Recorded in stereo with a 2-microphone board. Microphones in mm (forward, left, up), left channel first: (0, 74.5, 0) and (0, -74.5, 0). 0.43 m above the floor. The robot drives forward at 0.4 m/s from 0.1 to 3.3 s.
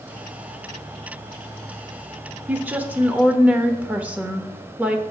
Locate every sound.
2.5 s a woman speaking: 10° right (ahead or behind), 0.8 m